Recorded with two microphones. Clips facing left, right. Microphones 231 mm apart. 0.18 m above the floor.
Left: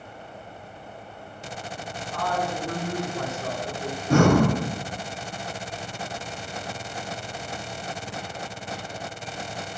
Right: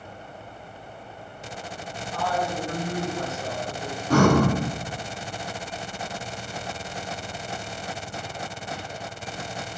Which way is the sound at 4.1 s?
25° left (ahead or behind).